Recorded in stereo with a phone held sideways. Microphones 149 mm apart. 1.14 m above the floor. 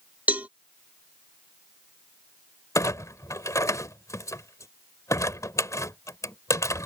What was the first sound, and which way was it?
A cowbell, 10° right (ahead or behind).